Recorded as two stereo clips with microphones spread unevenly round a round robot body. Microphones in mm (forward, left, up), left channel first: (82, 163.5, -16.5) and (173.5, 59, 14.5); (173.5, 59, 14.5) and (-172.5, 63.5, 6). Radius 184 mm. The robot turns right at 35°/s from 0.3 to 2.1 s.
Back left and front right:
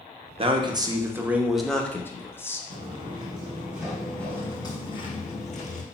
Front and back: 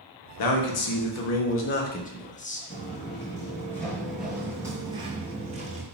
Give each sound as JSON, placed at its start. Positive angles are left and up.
{"t": 0.4, "sound": "a man speaking", "azimuth_deg": 5, "distance_m": 0.8}
{"t": 2.7, "sound": "footsteps", "azimuth_deg": -70, "distance_m": 1.1}